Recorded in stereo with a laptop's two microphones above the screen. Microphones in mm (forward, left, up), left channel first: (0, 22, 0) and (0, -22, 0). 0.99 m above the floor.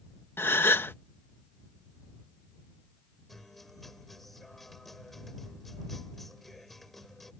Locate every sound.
0.4 s a gasp: 60° left (ahead or behind)
3.3 s a guitar: 5° left (ahead or behind)